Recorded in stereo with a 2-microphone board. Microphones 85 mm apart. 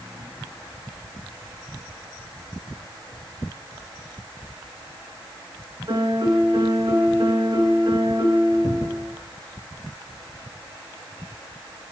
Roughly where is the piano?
Right.